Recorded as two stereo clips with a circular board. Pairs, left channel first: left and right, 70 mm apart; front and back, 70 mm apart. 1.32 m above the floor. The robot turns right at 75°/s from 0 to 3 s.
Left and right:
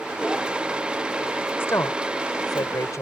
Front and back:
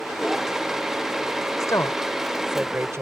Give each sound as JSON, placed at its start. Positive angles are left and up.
{"t": 1.6, "sound": "a woman speaking", "azimuth_deg": 30}